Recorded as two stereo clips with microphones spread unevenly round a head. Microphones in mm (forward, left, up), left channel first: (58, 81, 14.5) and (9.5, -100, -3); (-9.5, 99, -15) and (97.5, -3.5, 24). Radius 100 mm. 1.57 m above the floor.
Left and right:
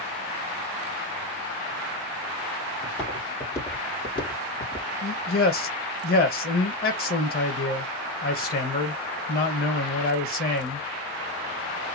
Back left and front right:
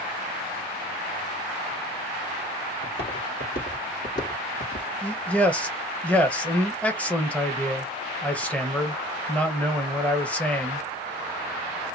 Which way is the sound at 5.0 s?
50° left.